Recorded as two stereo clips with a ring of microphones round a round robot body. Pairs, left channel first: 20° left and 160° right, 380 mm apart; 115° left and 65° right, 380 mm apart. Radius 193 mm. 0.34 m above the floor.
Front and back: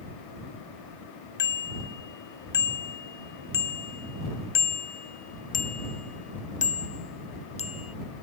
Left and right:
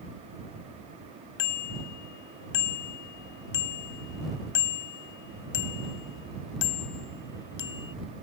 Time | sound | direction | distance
1.4 | a bicycle bell | 85° left | ?